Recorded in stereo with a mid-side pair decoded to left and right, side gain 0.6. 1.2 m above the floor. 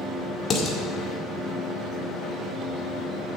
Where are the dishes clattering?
45° left, 1.8 m.